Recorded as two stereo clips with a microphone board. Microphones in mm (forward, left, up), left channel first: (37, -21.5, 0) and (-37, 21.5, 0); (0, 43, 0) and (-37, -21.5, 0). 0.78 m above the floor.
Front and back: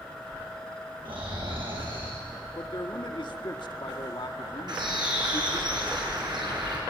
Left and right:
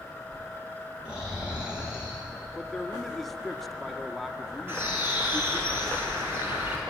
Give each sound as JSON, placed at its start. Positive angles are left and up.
{"t": 1.1, "sound": "snoring", "azimuth_deg": 165, "distance_m": 7.5}
{"t": 2.5, "sound": "a man speaking", "azimuth_deg": -25, "distance_m": 1.5}
{"t": 4.7, "sound": "a bird", "azimuth_deg": 180, "distance_m": 6.5}